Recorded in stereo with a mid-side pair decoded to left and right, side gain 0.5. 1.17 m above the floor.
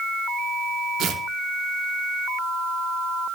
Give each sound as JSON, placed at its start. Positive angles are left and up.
{"t": 1.0, "sound": "tearing paper", "azimuth_deg": -65, "distance_m": 2.5}